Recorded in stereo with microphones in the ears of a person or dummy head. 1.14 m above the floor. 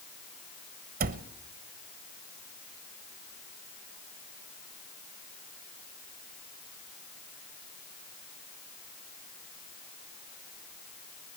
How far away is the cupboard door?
About 0.9 m.